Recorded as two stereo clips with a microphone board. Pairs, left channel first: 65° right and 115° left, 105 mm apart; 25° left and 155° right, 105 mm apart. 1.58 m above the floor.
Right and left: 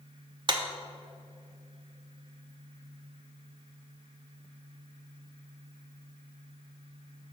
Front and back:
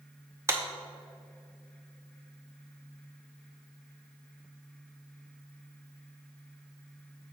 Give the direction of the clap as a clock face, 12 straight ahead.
7 o'clock.